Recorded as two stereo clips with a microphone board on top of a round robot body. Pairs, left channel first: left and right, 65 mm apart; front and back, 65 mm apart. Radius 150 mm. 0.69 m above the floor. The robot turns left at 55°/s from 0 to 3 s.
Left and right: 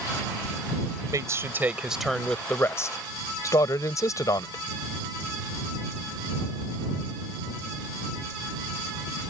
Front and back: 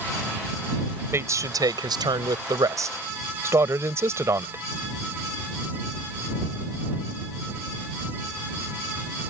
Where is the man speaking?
125° right; by 4.6 s 130° left.